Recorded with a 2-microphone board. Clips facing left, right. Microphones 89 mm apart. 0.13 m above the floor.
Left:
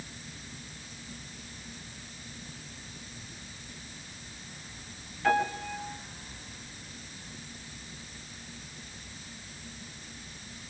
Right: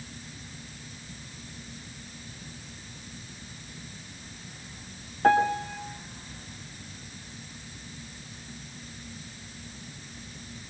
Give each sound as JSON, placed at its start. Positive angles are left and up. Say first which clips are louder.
{"t": 5.2, "sound": "a piano", "louder": "right 5 dB", "side_deg": -45, "distance_m": 3.5}